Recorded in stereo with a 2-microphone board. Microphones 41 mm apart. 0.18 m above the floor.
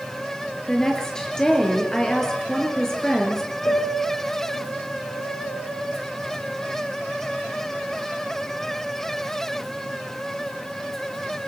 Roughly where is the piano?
Left.